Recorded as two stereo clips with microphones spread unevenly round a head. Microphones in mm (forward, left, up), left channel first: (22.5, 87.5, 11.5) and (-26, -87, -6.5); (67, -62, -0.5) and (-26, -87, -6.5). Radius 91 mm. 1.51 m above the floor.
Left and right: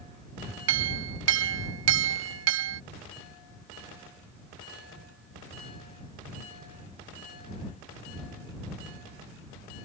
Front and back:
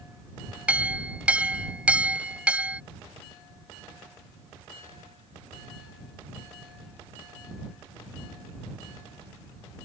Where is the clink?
85° right.